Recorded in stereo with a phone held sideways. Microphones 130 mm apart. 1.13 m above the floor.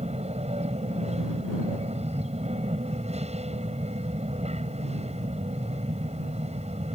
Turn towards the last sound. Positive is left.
turn(degrees=-55)  # may be behind; listen again after turning